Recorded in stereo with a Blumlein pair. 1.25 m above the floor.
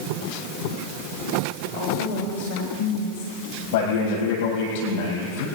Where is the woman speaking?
65° left, 3 m; by 3.3 s 50° left, 2 m.